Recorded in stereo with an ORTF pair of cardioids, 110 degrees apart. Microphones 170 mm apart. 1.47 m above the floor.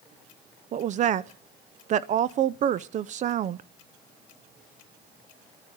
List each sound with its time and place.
0.7 s a woman speaking: 45° right, 0.5 m